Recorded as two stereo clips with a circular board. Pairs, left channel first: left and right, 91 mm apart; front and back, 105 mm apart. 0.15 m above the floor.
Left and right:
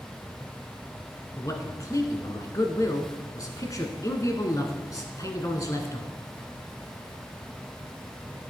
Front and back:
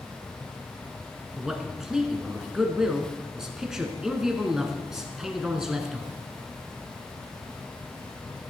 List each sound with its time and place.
1.4 s a man speaking: 95° left, 1.3 m